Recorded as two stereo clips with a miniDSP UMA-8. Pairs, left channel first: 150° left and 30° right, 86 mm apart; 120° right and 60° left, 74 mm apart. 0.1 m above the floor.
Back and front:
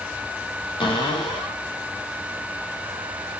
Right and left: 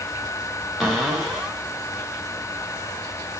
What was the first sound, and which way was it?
A cupboard door, 150° left.